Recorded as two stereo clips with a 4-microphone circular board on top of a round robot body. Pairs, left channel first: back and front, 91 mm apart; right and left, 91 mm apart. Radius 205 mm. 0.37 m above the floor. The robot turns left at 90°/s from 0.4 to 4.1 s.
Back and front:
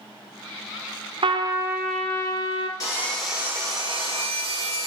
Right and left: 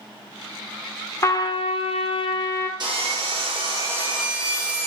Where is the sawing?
125° left, 5 m; by 4.9 s 10° left, 5 m.